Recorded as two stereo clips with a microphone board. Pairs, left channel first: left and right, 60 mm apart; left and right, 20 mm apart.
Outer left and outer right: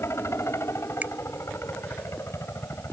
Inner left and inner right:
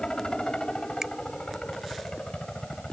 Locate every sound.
0.0 s a helicopter: 45° left (ahead or behind)
1.0 s a finger snap: 30° right (ahead or behind)